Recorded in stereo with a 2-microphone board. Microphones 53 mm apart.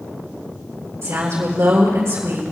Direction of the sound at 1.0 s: 55° right (ahead or behind).